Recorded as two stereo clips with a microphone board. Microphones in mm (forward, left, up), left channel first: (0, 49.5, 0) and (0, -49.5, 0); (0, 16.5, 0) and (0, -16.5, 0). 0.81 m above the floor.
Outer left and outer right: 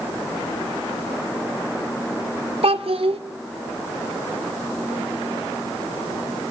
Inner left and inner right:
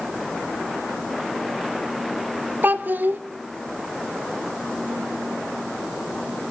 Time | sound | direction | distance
2.6 | a child speaking | 75° right (ahead or behind) | 2 m